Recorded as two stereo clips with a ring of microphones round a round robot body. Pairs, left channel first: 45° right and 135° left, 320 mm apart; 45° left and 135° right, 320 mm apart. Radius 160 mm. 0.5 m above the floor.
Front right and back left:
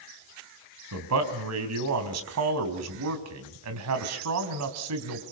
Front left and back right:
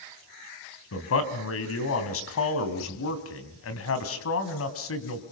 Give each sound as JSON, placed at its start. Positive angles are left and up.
{"t": 0.9, "sound": "a man speaking", "azimuth_deg": 95, "distance_m": 3.0}